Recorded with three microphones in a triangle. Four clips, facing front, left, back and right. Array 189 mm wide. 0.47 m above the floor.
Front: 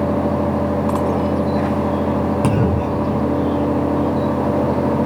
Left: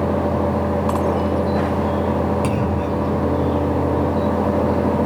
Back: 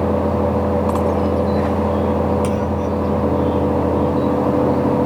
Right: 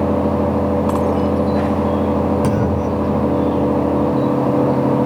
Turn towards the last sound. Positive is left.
turn(degrees=-15)